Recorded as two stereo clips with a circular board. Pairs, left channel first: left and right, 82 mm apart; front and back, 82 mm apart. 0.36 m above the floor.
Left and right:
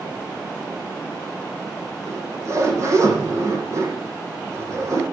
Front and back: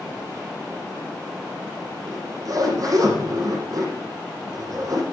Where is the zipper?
140° right, 8.5 m.